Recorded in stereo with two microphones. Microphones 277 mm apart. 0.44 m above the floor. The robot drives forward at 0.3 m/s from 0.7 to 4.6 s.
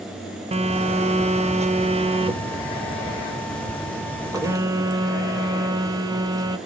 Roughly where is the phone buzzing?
Right.